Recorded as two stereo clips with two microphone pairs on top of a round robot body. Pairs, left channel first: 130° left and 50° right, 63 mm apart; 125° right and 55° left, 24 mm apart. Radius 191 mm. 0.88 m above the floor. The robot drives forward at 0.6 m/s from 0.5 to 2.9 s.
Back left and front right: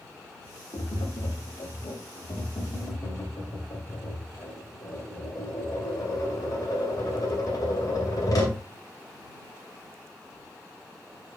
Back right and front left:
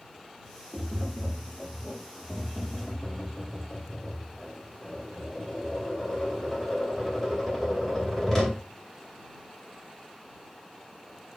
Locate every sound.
0.7 s tapping: 145° left, 1.5 m; by 8.6 s 160° left, 2.5 m